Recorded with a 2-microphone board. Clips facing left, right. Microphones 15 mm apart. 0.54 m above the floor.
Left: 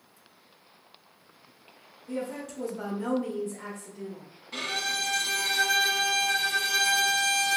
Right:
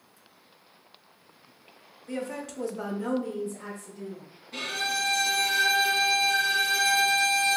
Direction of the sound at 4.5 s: 60° left (ahead or behind).